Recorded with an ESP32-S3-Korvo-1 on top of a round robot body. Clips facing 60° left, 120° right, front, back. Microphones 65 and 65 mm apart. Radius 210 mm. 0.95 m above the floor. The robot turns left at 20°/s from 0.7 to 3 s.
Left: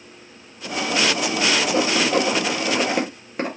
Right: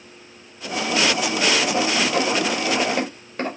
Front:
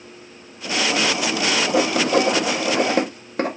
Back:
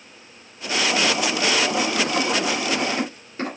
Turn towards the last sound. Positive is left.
turn(degrees=-20)